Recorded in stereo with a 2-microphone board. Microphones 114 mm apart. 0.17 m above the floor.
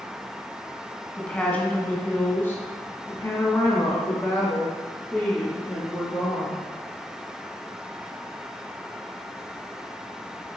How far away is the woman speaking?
About 1.5 m.